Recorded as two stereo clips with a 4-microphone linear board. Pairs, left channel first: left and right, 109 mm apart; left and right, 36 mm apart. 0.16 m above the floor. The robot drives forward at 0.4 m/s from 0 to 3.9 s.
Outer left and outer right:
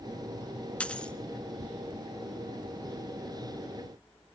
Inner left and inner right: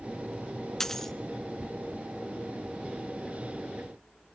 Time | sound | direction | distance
0.8 | a dropped coin | 10° left (ahead or behind) | 0.6 m